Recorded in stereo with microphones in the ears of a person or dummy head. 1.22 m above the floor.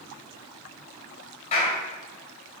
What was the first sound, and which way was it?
A clap, 40° left (ahead or behind).